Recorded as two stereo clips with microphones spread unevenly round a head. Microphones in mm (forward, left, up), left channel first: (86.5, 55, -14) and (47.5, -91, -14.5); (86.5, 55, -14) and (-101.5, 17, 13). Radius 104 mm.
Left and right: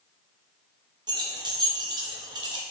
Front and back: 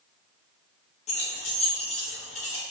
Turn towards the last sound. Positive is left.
turn(degrees=-50)